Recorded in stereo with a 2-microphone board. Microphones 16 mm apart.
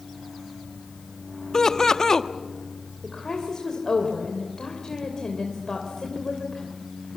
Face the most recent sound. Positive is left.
turn(degrees=35)  # may be behind; listen again after turning